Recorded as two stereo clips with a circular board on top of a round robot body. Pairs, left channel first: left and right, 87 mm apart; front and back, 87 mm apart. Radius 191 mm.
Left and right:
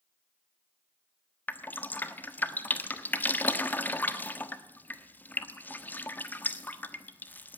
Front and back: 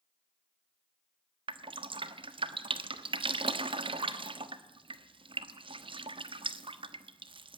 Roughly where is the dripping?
Behind.